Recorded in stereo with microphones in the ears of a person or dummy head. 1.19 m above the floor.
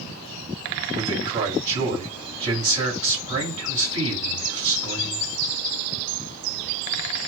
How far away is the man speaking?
About 7 m.